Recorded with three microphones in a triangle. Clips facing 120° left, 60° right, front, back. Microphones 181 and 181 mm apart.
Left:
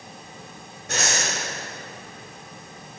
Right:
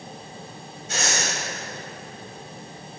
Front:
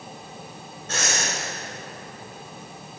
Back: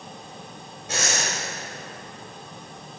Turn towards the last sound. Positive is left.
turn(degrees=105)